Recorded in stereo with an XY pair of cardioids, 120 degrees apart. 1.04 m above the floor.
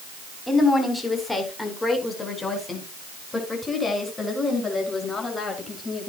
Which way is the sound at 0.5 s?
10° left.